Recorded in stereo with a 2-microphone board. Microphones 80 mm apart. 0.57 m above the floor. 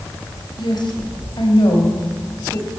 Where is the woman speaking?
70° left (ahead or behind), 3 m.